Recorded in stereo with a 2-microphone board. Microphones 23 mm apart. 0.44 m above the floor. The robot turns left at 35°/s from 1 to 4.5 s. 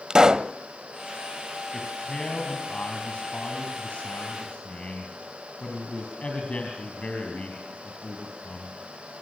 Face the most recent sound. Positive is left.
turn(degrees=60)